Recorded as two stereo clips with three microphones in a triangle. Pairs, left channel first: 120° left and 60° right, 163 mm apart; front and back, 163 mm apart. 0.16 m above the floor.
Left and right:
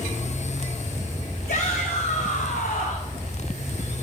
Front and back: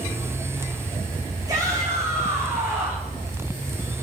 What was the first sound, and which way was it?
A shout, 115° left.